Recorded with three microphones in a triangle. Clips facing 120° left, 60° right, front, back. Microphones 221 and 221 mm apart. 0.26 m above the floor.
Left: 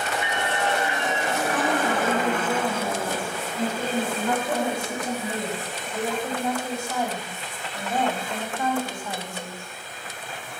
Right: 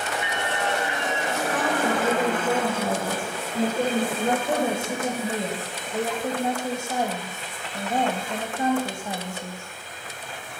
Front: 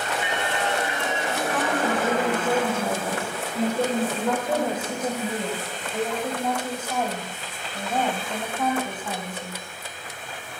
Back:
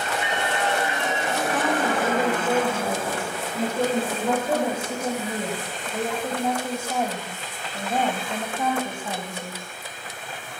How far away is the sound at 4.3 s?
About 1.4 m.